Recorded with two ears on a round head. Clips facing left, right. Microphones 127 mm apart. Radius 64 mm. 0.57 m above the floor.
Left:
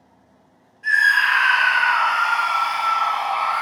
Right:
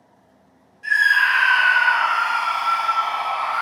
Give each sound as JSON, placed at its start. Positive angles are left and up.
{"t": 0.8, "sound": "a scream", "side_deg": -35, "distance_m": 1.3}